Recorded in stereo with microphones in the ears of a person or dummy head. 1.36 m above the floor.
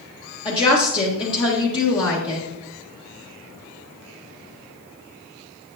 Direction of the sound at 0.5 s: 25° left (ahead or behind).